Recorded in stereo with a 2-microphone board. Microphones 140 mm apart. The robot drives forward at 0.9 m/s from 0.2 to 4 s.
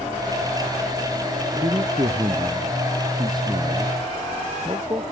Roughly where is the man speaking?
Right.